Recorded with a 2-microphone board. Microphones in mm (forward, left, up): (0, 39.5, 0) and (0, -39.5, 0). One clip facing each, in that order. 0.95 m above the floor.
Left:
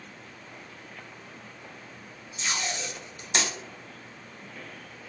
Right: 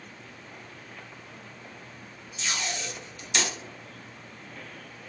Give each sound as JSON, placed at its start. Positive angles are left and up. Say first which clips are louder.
{"t": 2.4, "sound": "tape being pulled", "louder": "left 1 dB", "side_deg": 35, "distance_m": 2.0}